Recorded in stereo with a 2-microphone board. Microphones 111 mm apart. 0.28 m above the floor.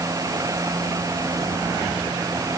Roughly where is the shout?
I don't hear a shout.